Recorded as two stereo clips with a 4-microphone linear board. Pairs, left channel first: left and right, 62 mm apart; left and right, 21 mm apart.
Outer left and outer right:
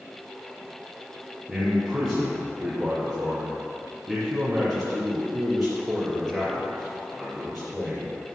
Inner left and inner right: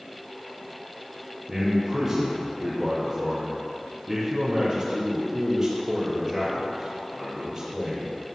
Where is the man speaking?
5° right (ahead or behind), 3 m.